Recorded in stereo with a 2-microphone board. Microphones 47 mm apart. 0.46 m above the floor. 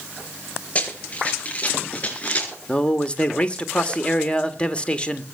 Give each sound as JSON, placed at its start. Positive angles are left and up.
{"t": 0.8, "sound": "running footsteps", "side_deg": 30, "distance_m": 6.5}
{"t": 2.7, "sound": "a man speaking", "side_deg": 25, "distance_m": 1.6}